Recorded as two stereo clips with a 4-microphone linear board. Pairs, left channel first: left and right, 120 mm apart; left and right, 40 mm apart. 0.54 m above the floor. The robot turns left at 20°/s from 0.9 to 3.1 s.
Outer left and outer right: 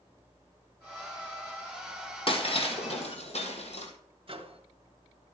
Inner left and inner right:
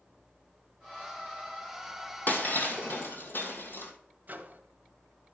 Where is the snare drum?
No snare drum in this recording.